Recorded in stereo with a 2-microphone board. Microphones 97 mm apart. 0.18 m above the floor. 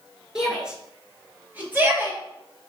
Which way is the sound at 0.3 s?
10° right (ahead or behind).